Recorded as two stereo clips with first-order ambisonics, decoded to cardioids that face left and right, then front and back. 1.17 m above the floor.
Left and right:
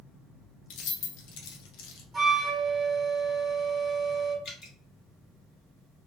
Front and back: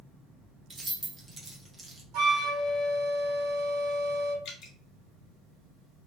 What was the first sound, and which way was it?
Keys jangling, 100° left.